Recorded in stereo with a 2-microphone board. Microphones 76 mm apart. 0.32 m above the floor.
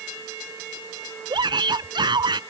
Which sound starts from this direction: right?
A shout, at 1.3 s.